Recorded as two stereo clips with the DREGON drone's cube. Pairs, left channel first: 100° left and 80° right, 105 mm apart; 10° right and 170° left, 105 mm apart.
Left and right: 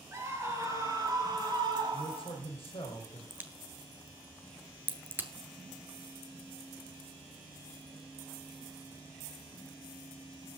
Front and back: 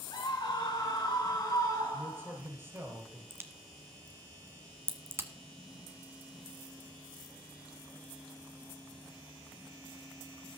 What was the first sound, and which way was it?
A scream, 25° right.